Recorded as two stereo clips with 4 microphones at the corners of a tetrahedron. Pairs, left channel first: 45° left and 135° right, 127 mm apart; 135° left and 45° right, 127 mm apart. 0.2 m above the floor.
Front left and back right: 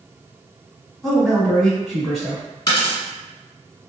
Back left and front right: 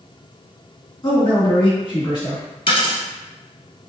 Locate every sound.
1.0 s a man speaking: 130° left, 1.5 m
2.7 s a dropped coin: 95° left, 1.4 m